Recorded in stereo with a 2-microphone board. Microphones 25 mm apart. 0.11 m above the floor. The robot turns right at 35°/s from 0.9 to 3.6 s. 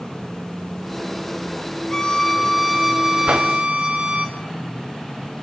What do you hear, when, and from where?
1.9 s a violin: 160° left, 2.5 m; by 4.3 s 145° right, 2.5 m
3.3 s a whoosh: 75° right (ahead or behind), 2.5 m; by 3.5 s 85° right, 2.5 m